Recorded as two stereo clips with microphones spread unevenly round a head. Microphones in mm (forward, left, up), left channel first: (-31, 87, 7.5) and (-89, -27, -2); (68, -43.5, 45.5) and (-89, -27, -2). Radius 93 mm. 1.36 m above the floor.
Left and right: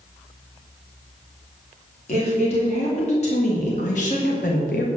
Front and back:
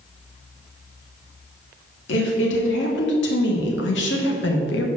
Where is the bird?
No bird in this recording.